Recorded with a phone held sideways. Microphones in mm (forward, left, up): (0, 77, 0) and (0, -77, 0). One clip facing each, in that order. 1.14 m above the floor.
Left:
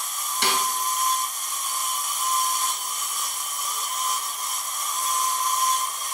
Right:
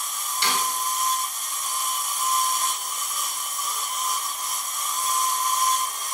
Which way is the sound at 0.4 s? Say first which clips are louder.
Left 1 dB; 60° left (ahead or behind).